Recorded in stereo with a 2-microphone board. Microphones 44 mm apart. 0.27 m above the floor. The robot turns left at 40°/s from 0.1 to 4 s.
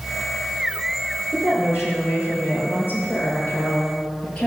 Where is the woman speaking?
130° left, 5.5 m; by 4.5 s 20° left, 5.5 m.